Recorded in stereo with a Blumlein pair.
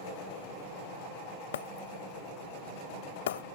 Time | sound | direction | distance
1.5 | breaking glass | 60° left | ?